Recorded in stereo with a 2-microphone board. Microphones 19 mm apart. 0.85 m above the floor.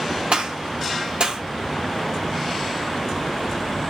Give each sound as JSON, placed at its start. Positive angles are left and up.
{"t": 0.3, "sound": "a gunshot", "side_deg": -75, "distance_m": 1.4}